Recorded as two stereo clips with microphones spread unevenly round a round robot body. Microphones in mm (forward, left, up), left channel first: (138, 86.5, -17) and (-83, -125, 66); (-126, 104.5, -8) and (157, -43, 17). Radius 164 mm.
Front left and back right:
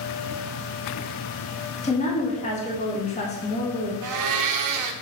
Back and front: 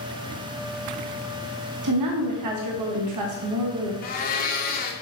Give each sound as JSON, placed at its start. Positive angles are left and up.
{"t": 1.8, "sound": "a woman speaking", "azimuth_deg": -10, "distance_m": 1.2}
{"t": 4.0, "sound": "a blender", "azimuth_deg": -160, "distance_m": 0.7}